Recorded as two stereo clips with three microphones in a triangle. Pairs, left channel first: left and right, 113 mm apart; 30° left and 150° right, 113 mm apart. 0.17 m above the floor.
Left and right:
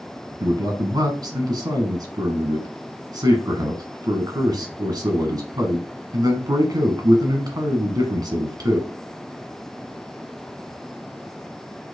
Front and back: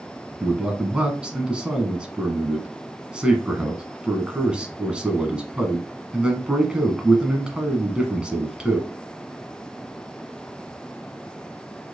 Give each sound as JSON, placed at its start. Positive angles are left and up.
{"t": 0.4, "sound": "a man speaking", "azimuth_deg": -75, "distance_m": 1.3}